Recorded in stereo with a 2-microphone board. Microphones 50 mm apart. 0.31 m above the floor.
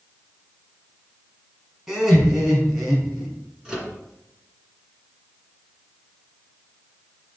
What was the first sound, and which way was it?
Laughter, 10° right (ahead or behind).